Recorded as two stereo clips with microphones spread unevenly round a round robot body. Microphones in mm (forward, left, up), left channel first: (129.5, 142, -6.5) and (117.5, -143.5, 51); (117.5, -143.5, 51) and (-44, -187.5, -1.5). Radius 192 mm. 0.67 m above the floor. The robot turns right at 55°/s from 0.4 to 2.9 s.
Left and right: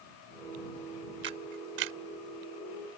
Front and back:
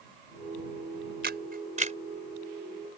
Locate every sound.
1.2 s a camera shutter: 160° right; by 2.0 s 120° right